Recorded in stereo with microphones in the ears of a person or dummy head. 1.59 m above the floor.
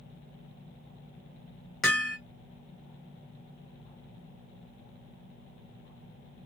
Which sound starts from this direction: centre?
Hammering, at 1.8 s.